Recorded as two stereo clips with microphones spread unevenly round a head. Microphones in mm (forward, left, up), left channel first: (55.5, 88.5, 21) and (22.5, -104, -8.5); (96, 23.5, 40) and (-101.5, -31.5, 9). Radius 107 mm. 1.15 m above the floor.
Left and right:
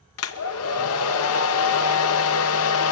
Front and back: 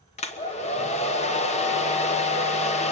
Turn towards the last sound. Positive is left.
turn(degrees=80)